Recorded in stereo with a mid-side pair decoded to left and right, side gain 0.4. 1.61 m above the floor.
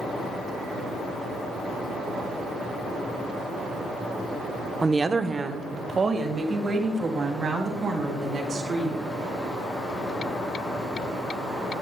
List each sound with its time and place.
4.8 s a woman speaking: 25° right, 0.8 m; by 9.0 s 55° right, 4.5 m